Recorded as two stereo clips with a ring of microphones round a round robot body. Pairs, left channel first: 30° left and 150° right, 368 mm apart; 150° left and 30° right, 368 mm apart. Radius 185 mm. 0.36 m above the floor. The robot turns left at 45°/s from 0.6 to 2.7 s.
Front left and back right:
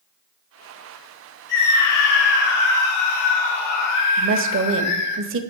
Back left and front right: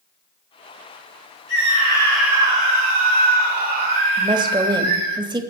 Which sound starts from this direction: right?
A woman speaking, at 4.2 s.